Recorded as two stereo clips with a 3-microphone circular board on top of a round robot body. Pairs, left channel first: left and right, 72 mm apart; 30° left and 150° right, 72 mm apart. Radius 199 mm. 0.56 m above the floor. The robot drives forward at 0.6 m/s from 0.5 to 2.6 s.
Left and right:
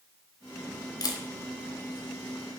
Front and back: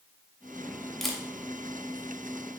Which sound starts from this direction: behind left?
A camera shutter, at 1.0 s.